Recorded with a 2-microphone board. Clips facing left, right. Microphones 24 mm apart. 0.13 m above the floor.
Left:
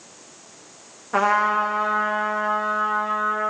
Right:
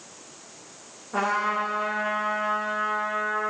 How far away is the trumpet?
About 3 m.